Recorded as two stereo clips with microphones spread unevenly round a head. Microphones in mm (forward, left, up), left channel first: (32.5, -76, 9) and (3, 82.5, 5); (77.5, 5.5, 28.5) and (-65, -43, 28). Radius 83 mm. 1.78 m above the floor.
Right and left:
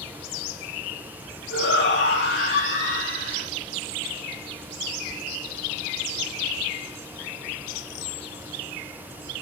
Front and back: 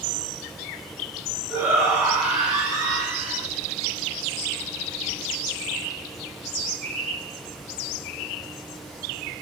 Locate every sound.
1.5 s a shout: 75° right, 10 m